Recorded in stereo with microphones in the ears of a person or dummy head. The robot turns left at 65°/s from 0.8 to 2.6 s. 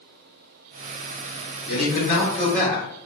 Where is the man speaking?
80° left, 1.4 m; by 2.9 s 15° left, 1.4 m.